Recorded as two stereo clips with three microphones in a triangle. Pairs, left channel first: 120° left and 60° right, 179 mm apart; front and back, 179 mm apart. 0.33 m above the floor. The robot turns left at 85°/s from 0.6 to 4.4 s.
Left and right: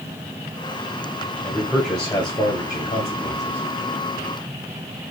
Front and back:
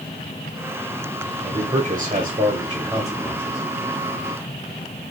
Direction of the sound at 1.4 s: 130° right.